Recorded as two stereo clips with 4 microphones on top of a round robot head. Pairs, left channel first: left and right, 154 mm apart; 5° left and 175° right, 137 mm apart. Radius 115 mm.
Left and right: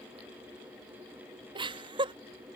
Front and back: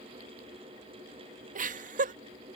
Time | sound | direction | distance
1.6 | laughter | 150° right | ?